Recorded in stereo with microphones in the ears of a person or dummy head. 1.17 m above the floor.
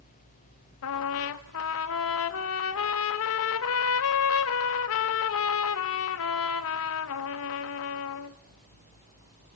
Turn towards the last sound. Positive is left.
turn(degrees=70)  # may be behind; listen again after turning